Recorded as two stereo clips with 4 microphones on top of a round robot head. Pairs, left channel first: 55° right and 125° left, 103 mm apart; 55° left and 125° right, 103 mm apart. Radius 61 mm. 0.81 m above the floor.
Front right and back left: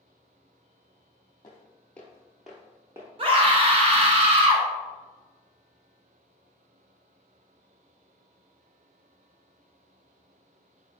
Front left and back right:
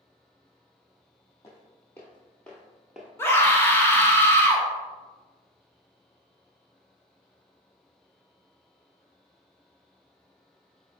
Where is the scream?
120° left, 1.1 m.